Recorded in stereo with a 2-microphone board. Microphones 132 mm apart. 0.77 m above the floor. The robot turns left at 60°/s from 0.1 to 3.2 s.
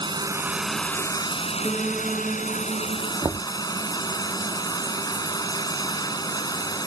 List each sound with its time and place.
0.0 s running water: 145° right; by 6.9 s 30° left
1.6 s a piano: 25° left; by 3.1 s 65° right
3.2 s knocking: 30° right (ahead or behind)